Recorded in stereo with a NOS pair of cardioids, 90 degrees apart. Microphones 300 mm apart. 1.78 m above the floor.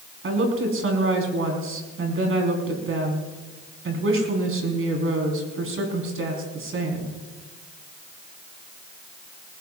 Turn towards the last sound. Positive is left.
turn(degrees=-45)